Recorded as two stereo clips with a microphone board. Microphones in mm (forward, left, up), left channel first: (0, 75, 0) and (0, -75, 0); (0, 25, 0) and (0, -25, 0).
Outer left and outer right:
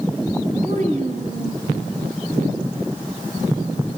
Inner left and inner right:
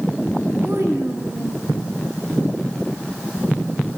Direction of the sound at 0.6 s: 55° right (ahead or behind).